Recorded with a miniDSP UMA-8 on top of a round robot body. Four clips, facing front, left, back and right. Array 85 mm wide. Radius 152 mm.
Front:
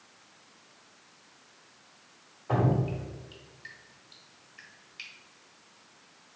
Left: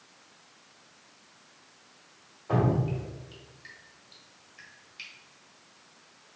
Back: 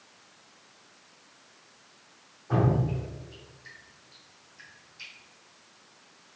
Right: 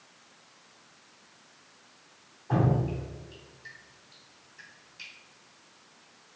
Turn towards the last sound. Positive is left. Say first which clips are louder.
# even, back 1 dB
turn(degrees=30)